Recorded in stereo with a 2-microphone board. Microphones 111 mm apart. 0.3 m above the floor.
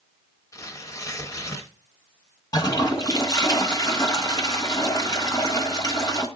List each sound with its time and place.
0.5 s tearing paper: 30° left (ahead or behind), 0.8 m
2.5 s a toilet flushing: 35° left (ahead or behind), 1.3 m